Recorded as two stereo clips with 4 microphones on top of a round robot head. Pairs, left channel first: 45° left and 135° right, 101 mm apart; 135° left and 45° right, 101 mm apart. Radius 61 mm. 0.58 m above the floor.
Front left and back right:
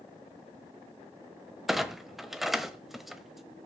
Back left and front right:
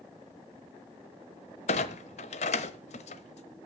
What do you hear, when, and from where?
1.7 s a clunk: 135° left, 1.1 m